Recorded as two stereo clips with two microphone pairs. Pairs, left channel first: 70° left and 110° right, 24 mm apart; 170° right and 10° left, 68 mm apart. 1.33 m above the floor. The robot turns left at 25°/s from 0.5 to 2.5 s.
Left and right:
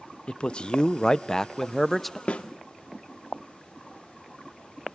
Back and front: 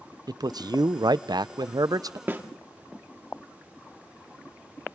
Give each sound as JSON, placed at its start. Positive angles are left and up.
{"t": 0.3, "sound": "a man speaking", "azimuth_deg": 25, "distance_m": 0.5}
{"t": 2.3, "sound": "a snare drum", "azimuth_deg": 65, "distance_m": 1.7}